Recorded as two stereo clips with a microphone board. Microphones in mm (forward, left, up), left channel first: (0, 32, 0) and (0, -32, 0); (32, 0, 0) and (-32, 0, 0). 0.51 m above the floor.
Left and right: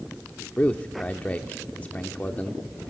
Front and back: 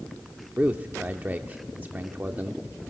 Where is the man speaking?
140° left, 0.8 m.